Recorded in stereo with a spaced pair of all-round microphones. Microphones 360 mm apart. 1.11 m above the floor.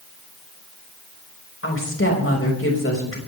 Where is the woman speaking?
35° left (ahead or behind), 5.5 m.